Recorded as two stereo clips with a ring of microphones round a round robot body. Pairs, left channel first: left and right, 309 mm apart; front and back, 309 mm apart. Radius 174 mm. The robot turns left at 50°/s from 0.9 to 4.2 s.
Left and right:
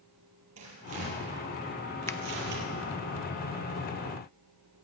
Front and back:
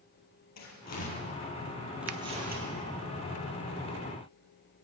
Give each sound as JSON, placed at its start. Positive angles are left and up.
{"t": 0.6, "sound": "tearing paper", "azimuth_deg": -35, "distance_m": 4.5}
{"t": 2.1, "sound": "a finger snap", "azimuth_deg": 170, "distance_m": 0.7}